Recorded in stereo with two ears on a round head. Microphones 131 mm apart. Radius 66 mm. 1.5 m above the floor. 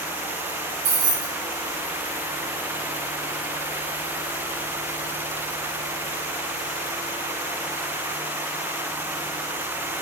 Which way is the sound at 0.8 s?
75° right (ahead or behind).